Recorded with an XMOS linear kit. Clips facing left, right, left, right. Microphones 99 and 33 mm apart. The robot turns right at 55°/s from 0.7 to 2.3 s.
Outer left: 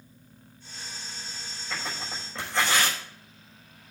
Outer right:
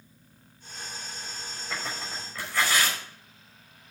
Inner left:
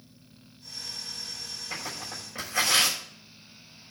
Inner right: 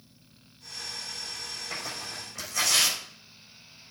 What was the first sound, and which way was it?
Tearing paper, 10° right (ahead or behind).